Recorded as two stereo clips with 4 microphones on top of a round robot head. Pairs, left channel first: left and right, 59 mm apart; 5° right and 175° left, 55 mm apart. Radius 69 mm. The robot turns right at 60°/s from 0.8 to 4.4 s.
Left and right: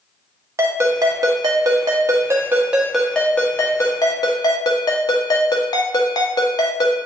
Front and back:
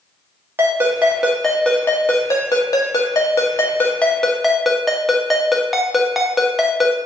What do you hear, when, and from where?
0.6 s a ringtone: 130° right, 1.1 m; by 7.0 s 85° left, 1.1 m